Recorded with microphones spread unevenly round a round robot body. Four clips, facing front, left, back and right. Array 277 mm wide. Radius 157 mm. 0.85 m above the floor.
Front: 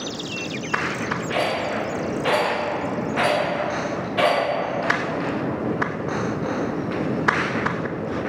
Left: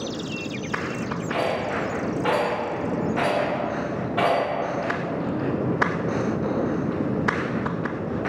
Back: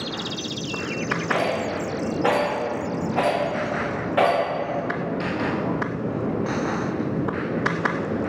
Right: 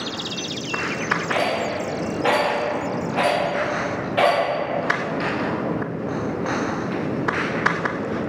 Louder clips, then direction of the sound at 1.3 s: Even, even; 155° right.